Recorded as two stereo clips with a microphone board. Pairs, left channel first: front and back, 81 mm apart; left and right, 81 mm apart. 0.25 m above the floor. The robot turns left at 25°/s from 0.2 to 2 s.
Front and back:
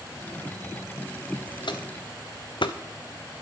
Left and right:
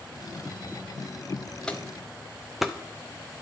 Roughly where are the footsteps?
Ahead.